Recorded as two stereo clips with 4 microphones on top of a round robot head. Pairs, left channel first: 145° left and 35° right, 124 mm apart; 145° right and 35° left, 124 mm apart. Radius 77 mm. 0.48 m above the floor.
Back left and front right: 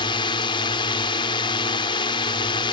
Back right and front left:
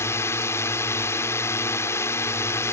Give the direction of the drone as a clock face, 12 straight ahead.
7 o'clock.